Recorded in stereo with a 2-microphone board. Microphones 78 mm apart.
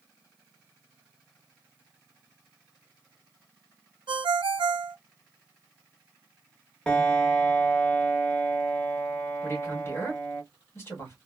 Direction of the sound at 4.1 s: 80° right.